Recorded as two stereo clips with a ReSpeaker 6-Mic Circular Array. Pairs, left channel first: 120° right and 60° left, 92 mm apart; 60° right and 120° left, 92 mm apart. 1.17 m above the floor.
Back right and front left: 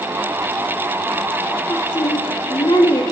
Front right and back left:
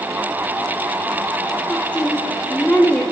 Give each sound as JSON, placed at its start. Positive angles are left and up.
{"t": 1.7, "sound": "a woman speaking", "azimuth_deg": -130, "distance_m": 2.5}